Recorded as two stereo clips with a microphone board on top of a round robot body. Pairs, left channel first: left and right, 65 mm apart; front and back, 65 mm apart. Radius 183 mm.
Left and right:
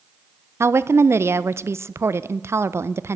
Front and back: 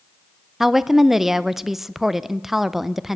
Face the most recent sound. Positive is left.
turn(degrees=-95)